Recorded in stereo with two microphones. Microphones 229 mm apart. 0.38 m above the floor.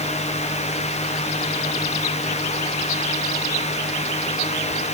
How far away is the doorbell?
I don't hear a doorbell.